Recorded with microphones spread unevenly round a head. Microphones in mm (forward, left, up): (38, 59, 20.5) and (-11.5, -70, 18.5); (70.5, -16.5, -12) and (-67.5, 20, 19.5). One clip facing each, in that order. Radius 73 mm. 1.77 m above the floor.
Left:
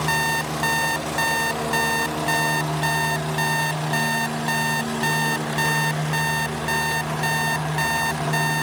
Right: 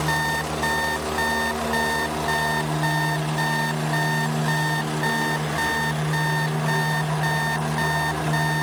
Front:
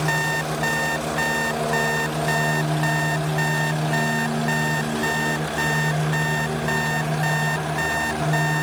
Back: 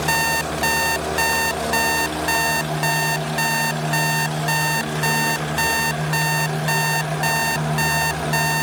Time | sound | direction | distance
0.1 | an alarm clock | 135° left | ?